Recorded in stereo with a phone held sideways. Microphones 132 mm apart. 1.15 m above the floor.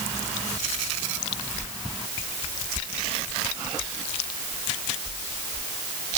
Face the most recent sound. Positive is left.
No sound to turn to.